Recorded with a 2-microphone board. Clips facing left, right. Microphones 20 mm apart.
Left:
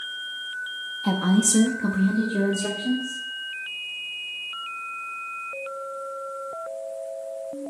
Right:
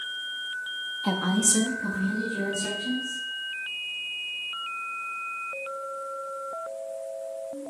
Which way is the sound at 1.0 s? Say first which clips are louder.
Left 4 dB; 25° right (ahead or behind).